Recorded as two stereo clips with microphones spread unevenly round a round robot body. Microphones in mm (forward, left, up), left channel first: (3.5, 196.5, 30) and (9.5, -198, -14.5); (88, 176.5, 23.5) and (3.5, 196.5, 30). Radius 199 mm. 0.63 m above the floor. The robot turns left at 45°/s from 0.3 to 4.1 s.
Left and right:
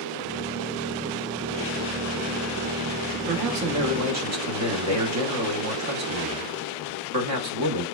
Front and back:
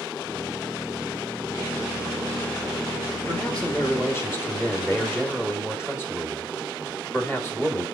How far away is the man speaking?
About 0.9 m.